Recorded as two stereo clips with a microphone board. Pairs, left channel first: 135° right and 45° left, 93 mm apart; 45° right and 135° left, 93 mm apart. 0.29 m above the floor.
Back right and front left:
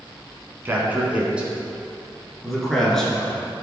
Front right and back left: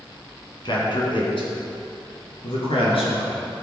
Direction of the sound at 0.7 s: 20° right.